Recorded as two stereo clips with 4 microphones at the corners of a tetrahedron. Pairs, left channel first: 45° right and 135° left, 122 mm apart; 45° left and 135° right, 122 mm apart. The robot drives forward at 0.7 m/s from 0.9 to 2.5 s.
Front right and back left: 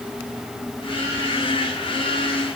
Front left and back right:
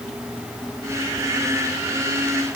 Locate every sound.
Only background noise.